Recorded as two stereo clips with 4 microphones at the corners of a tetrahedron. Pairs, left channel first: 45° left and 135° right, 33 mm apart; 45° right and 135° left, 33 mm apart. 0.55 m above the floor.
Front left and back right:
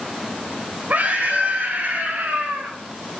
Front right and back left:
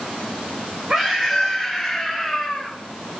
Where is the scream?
160° right, 2.5 m; by 2.8 s 130° right, 3 m.